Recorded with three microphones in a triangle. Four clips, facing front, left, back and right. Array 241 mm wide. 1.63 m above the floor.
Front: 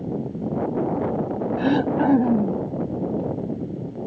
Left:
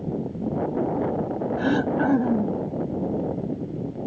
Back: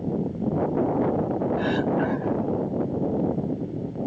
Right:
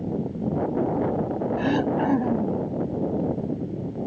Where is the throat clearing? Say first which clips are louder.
Left 1 dB, front 7 dB; 10° left.